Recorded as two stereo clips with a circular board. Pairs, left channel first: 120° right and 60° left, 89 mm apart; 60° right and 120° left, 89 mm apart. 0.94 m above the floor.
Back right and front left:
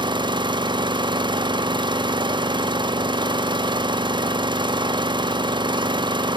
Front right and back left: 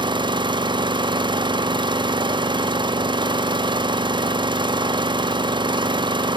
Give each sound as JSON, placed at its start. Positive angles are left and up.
{"t": 0.0, "sound": "an engine running", "azimuth_deg": 90, "distance_m": 0.9}